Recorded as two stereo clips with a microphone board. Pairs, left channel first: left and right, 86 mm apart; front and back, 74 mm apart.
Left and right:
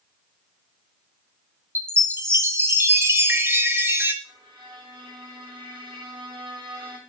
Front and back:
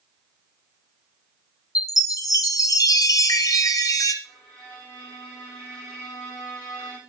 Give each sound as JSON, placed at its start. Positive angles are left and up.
{"t": 1.8, "sound": "a chime", "azimuth_deg": -30, "distance_m": 0.8}
{"t": 4.2, "sound": "a violin", "azimuth_deg": -75, "distance_m": 6.5}